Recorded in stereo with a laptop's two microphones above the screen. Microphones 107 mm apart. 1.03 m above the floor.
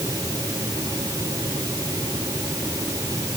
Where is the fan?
30° right (ahead or behind).